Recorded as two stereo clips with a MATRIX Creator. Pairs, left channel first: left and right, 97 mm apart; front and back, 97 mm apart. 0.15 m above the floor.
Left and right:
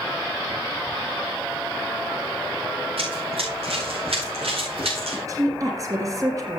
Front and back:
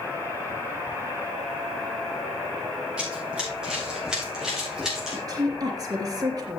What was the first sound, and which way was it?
Running footsteps, 100° right.